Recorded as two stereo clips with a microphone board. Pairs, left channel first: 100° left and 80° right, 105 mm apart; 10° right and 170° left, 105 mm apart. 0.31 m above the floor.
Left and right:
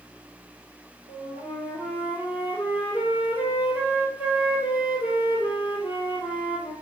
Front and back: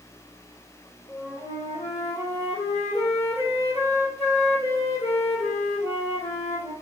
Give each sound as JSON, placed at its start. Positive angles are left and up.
{"t": 1.1, "sound": "a flute", "azimuth_deg": -5, "distance_m": 1.5}